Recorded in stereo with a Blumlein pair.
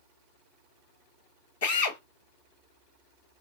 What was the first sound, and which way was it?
A drill, 55° left.